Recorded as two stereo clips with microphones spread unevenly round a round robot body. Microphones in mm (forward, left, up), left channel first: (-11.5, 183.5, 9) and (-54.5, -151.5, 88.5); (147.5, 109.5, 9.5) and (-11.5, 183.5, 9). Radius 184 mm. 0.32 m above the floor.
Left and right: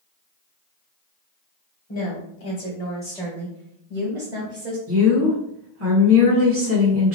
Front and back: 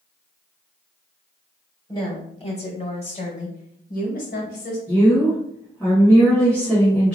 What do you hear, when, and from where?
1.9 s a woman speaking: 45° left, 1.7 m; by 4.8 s 35° right, 1.8 m
4.9 s a woman speaking: 100° right, 1.5 m